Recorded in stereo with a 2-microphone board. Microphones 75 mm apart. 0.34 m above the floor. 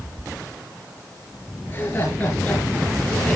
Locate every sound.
1.7 s laughter: 30° left (ahead or behind), 6.5 m; by 3.4 s 15° left (ahead or behind), 4.5 m